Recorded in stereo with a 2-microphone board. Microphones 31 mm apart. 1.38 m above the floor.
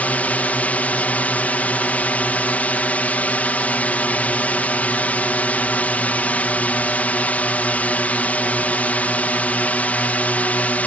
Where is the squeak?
I don't hear a squeak.